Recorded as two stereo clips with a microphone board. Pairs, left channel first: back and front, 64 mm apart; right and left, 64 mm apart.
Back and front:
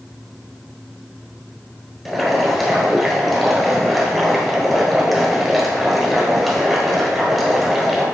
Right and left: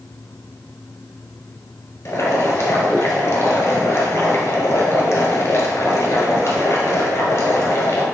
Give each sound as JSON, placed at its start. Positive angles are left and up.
{"t": 2.0, "sound": "boiling", "azimuth_deg": -90, "distance_m": 1.2}